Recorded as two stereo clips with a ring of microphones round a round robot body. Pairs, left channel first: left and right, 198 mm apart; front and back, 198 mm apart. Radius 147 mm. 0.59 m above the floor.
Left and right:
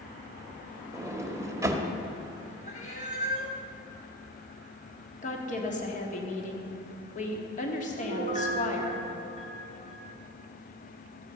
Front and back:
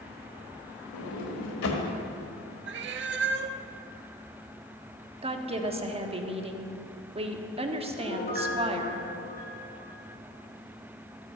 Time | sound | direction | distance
0.9 | a sliding door | 15° right | 1.4 m
2.7 | a cat meowing | 155° left | 0.6 m
5.2 | a woman speaking | 130° left | 1.3 m
8.0 | a piano | 35° left | 3.5 m